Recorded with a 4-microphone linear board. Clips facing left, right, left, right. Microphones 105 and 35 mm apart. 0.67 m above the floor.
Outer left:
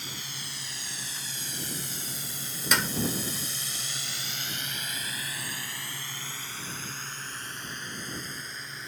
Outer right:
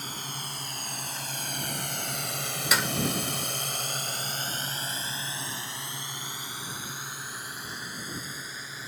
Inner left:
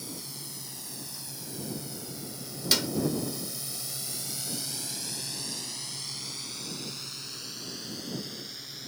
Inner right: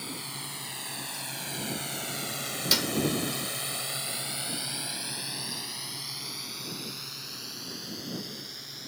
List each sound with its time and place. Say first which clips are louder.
0.0 s a drone: outer right 4 dB, inner right 4 dB; 45° right (ahead or behind); by 8.9 s 5° right (ahead or behind)
2.7 s a clap: even, even; 5° right (ahead or behind)